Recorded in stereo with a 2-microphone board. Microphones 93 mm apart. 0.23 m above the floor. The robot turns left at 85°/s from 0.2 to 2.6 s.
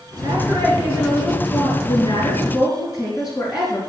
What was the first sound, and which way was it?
A woman speaking, 105° right.